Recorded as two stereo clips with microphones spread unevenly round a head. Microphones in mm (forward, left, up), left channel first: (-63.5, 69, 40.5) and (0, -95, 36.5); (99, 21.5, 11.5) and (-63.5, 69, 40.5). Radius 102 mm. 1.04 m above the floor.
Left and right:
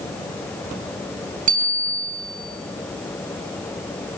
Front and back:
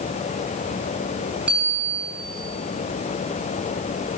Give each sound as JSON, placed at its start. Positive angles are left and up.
{"t": 1.5, "sound": "a bicycle bell", "azimuth_deg": -115, "distance_m": 7.5}